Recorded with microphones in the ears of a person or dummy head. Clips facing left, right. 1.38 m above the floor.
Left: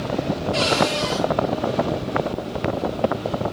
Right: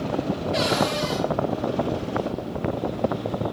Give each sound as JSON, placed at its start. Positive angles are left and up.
{"t": 0.5, "sound": "a cupboard door", "side_deg": -5, "distance_m": 4.0}